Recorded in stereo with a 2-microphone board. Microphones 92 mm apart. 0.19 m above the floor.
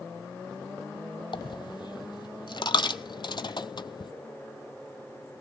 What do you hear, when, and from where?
1.3 s a dropped coin: 60° left (ahead or behind), 0.8 m